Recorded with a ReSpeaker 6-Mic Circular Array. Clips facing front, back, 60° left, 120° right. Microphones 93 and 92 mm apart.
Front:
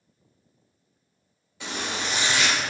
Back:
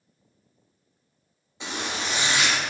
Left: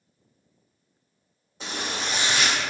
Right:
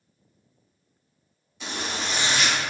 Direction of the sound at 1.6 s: 115° left.